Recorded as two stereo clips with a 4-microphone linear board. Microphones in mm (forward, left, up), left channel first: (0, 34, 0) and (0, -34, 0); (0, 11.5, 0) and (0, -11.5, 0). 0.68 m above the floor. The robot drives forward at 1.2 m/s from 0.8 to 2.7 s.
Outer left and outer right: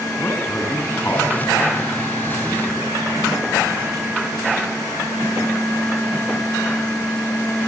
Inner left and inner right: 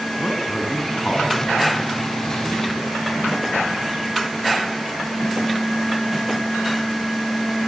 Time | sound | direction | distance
0.2 | a man speaking | 35° left (ahead or behind) | 8.5 m